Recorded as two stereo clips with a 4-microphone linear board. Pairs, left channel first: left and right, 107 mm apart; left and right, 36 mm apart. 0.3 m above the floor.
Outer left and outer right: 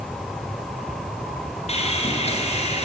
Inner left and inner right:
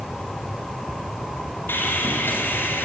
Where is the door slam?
No door slam in this recording.